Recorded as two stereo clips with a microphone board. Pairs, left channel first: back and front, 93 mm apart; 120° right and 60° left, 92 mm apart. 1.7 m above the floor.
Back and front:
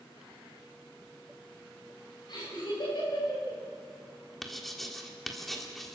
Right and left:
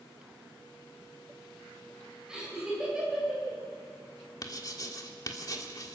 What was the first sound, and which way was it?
Laughter, 145° left.